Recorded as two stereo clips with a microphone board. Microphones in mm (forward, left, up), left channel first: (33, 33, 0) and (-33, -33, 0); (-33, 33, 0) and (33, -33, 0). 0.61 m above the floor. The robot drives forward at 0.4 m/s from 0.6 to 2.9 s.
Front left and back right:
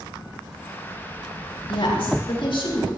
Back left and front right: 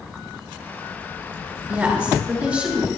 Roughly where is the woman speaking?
Ahead left.